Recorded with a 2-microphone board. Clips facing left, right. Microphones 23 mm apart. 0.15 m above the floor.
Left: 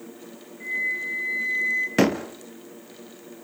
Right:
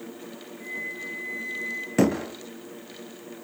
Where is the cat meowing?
No cat meowing in this recording.